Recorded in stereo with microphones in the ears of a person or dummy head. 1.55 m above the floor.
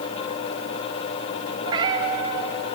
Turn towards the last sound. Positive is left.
turn(degrees=-25)  # may be behind; listen again after turning